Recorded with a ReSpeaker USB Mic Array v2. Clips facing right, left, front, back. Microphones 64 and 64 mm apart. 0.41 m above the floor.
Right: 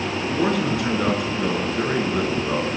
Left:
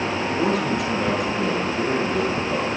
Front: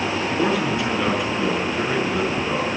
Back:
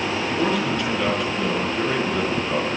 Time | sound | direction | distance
0.3 | a man speaking | 80° right | 5.5 m